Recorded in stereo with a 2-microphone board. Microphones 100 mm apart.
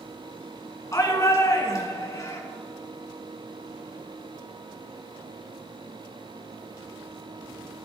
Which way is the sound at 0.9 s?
35° left (ahead or behind).